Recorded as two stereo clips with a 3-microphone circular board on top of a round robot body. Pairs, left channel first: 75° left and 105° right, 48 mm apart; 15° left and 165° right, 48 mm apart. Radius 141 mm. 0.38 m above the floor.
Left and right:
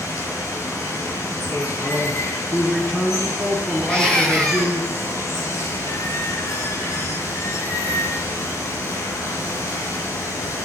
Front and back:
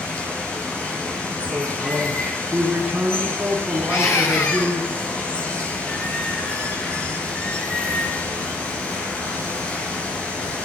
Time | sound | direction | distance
0.0 | running water | 80° left | 6 m
1.5 | a man speaking | 130° left | 8.5 m
3.9 | a scream | straight ahead | 6 m